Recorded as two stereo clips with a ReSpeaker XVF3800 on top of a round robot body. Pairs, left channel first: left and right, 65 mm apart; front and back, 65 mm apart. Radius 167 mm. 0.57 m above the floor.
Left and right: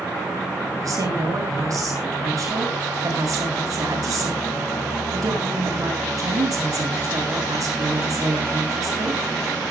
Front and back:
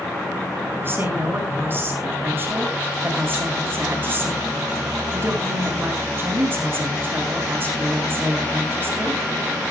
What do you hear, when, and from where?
0.8 s a woman speaking: 125° right, 8.5 m